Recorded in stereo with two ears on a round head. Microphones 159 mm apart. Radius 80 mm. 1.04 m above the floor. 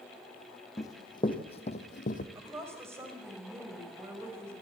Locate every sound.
0.8 s running footsteps: 20° left (ahead or behind), 2 m; by 2.2 s 50° left (ahead or behind), 1.8 m
2.4 s a woman speaking: 15° right (ahead or behind), 5 m